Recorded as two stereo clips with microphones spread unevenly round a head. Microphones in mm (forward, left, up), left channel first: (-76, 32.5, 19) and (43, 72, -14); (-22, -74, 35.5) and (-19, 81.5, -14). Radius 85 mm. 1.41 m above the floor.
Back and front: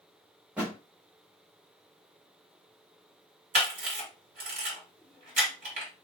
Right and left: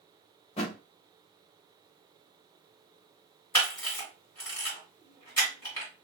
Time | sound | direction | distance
0.6 | a thud | 75° right | 1.0 m
3.5 | a camera shutter | 35° right | 2 m